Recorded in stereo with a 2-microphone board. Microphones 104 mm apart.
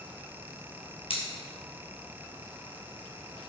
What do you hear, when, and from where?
1.1 s scissors: 75° left (ahead or behind), 0.9 m